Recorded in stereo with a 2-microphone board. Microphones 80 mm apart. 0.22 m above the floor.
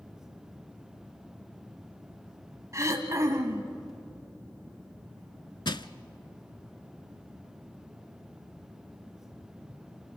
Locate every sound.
2.7 s throat clearing: 40° right (ahead or behind), 1.7 m
5.7 s crushing: 65° left (ahead or behind), 0.6 m